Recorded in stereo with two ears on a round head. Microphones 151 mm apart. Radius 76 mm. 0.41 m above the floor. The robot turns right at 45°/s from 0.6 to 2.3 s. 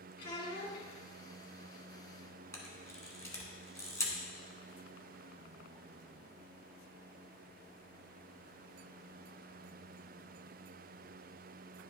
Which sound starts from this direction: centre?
A camera shutter, at 2.5 s.